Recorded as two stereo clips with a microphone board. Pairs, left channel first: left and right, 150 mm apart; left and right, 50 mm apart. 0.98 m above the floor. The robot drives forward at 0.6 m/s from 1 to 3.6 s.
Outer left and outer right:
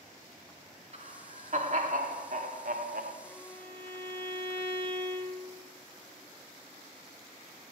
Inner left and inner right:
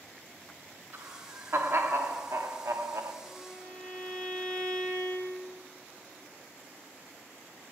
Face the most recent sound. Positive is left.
turn(degrees=15)  # may be behind; listen again after turning